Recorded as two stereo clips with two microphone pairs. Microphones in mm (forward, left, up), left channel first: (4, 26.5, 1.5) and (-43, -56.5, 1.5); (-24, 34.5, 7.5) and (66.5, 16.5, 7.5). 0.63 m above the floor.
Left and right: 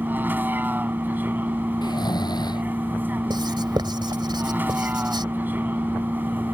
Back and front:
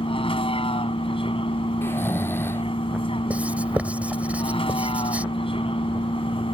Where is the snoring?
105° left.